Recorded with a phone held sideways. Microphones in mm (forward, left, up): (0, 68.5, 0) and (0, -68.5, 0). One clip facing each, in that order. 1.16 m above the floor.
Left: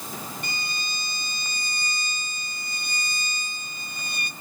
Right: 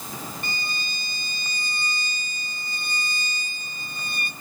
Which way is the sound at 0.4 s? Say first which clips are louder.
Right 1 dB; 50° right (ahead or behind).